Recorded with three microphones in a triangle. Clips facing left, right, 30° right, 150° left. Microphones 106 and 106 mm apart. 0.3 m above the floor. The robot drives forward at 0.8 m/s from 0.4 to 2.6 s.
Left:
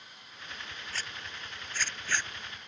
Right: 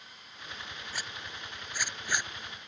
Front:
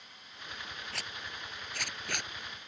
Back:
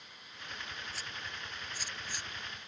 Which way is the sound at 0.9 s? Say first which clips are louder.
Even, front 1 dB; 15° right.